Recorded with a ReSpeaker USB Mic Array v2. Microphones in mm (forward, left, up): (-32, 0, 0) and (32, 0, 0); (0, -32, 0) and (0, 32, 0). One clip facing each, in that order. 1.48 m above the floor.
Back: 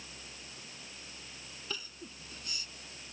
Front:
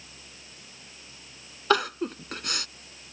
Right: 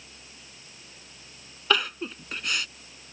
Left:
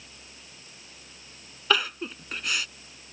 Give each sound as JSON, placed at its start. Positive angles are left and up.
{"t": 1.7, "sound": "crying", "azimuth_deg": 0}